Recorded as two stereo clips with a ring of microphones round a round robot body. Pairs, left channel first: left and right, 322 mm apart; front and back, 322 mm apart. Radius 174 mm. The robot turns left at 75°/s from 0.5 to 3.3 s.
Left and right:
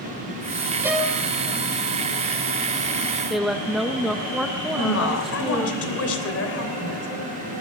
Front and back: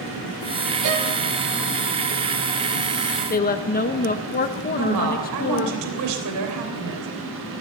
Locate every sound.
0.8 s a violin: 170° right, 2.5 m; by 1.1 s 165° left, 2.5 m
3.3 s a woman speaking: 5° right, 0.7 m
4.7 s a woman speaking: 135° left, 3 m